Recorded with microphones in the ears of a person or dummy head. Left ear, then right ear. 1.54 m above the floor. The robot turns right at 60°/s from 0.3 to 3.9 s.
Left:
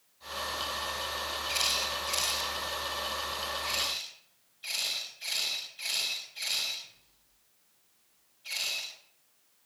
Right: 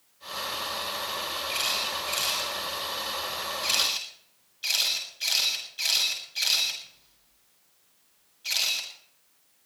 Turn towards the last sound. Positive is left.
turn(degrees=-35)  # may be behind; listen again after turning